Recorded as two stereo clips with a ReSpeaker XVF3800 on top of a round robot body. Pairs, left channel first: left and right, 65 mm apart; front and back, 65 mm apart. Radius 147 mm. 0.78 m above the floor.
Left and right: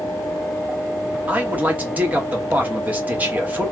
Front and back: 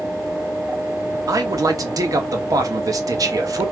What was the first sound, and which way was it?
A man speaking, 155° right.